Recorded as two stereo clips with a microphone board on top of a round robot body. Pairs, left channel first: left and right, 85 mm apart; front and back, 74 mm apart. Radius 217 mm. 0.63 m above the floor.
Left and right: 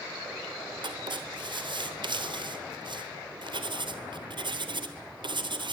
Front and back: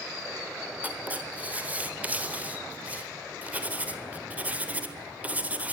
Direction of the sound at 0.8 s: 110° right.